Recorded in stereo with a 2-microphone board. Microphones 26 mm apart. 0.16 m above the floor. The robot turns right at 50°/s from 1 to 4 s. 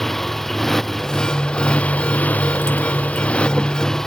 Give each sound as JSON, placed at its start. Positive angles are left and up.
{"t": 0.0, "sound": "a motorcycle", "azimuth_deg": 10}